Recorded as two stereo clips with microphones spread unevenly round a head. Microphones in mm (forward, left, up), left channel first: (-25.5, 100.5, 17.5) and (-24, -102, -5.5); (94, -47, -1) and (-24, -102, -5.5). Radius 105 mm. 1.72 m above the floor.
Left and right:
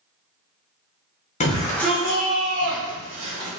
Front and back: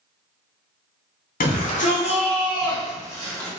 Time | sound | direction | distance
1.4 | a shout | 30° left | 1.1 m